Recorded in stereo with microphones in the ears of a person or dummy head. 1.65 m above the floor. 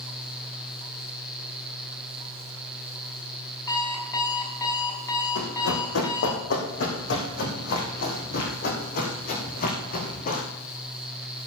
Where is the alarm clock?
20° left (ahead or behind), 6 m.